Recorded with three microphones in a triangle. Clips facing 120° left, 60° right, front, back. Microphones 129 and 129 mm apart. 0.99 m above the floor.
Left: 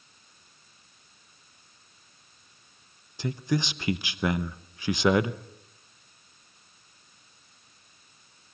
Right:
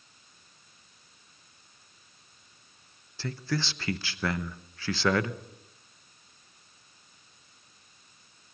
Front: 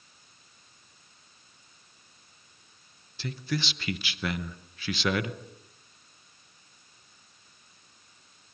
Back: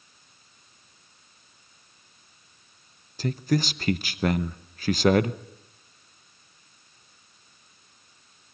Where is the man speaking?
175° right, 0.8 m.